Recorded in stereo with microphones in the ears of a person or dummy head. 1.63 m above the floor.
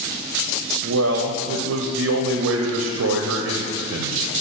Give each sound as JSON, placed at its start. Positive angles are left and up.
{"t": 0.8, "sound": "a man speaking", "side_deg": -70, "distance_m": 0.6}